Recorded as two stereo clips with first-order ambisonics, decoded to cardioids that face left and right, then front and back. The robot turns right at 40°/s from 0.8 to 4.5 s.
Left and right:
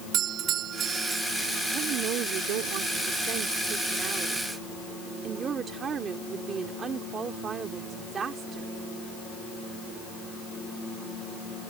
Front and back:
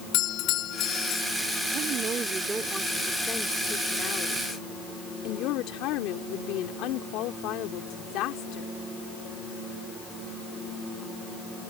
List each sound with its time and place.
0.1 s a doorbell: 40° right; by 1.2 s 25° right
1.7 s a woman speaking: 140° right; by 8.7 s 25° right